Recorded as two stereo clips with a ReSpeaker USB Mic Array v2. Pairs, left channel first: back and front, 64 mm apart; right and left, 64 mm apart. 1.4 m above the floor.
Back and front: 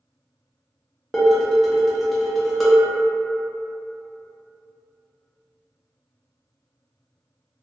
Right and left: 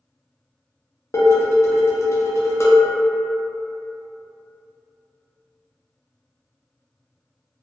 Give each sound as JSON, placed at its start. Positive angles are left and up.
{"t": 1.1, "sound": "dishes clattering", "azimuth_deg": -90, "distance_m": 0.6}